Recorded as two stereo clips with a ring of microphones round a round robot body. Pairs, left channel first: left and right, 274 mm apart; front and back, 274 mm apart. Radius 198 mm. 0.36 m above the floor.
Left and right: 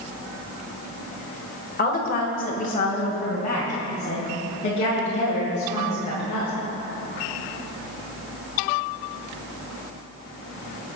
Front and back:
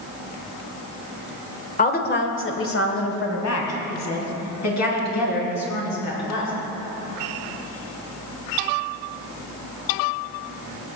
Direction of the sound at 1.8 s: 50° left.